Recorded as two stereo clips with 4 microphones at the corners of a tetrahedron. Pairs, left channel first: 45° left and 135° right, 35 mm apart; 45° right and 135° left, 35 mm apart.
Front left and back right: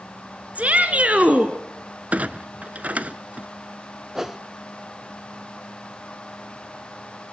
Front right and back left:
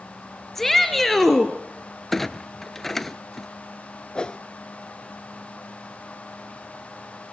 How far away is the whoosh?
About 0.5 m.